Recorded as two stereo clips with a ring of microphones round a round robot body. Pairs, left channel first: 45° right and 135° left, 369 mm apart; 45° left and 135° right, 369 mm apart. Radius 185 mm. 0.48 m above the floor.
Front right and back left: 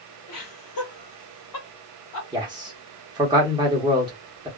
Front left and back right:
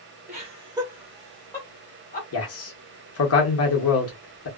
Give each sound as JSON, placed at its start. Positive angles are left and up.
{"t": 0.3, "sound": "laughter", "azimuth_deg": -65, "distance_m": 1.6}
{"t": 2.3, "sound": "a man speaking", "azimuth_deg": 60, "distance_m": 1.1}